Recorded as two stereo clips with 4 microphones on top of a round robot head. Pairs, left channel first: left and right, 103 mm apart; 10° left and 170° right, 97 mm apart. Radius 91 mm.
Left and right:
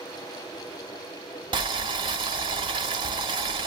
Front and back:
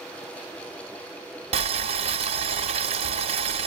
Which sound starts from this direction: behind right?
Boiling, at 1.5 s.